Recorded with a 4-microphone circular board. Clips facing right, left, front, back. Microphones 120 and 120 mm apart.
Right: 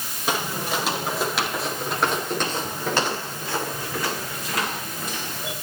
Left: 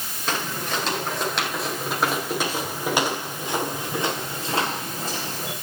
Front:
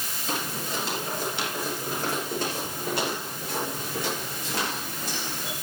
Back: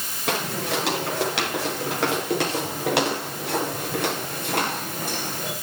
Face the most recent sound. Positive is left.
turn(degrees=145)